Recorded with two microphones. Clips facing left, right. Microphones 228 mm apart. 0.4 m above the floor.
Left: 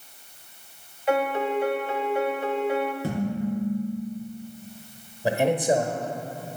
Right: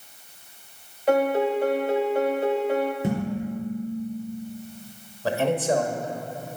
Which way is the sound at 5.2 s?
15° left (ahead or behind).